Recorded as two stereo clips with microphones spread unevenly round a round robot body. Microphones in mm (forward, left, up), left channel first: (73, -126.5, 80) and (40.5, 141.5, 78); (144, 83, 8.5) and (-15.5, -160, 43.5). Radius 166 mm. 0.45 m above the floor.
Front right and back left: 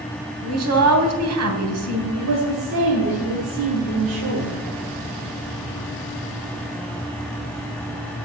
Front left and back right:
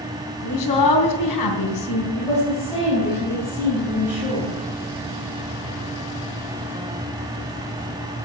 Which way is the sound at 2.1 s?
130° left.